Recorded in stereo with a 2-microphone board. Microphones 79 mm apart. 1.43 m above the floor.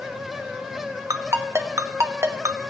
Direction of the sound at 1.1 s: 40° right (ahead or behind).